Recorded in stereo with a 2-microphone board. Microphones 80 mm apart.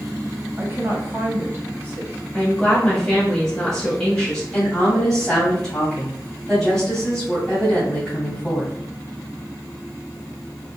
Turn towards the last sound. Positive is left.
turn(degrees=10)  # may be behind; listen again after turning